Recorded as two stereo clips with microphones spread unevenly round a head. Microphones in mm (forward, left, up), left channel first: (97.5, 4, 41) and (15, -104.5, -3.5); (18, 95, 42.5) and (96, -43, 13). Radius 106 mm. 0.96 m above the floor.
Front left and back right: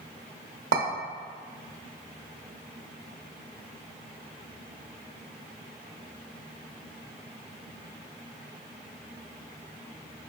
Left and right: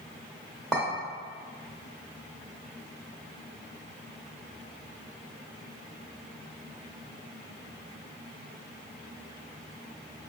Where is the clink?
155° right, 0.9 m.